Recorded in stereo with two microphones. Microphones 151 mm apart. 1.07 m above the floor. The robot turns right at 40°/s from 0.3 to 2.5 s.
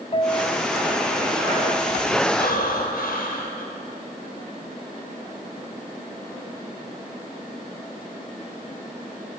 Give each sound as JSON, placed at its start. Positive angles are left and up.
{"t": 0.1, "sound": "a piano", "azimuth_deg": 125, "distance_m": 1.4}
{"t": 2.4, "sound": "breathing", "side_deg": 85, "distance_m": 4.5}